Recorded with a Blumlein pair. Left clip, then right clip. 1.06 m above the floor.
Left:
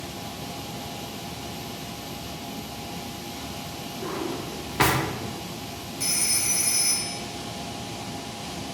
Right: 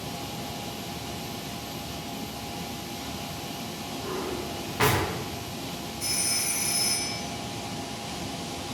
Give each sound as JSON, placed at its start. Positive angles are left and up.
{"t": 4.0, "sound": "a drawer", "azimuth_deg": 20, "distance_m": 0.5}
{"t": 6.0, "sound": "a phone ringing", "azimuth_deg": 55, "distance_m": 0.8}